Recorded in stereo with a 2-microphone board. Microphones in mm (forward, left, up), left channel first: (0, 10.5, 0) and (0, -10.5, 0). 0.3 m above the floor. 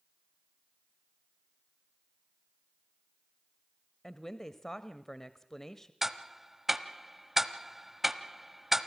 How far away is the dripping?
I don't hear dripping.